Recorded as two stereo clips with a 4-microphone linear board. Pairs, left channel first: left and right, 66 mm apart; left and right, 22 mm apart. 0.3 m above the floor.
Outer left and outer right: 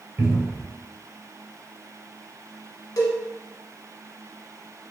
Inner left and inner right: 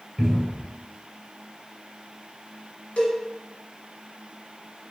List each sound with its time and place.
0.2 s a cupboard door: 30° right (ahead or behind), 1.0 m
3.0 s a cowbell: 65° left (ahead or behind), 0.9 m